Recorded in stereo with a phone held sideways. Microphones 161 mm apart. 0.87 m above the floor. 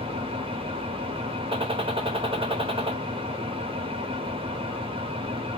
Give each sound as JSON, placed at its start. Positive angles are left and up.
{"t": 0.0, "sound": "an engine running", "side_deg": -35, "distance_m": 0.9}
{"t": 1.5, "sound": "a gunshot", "side_deg": -35, "distance_m": 0.8}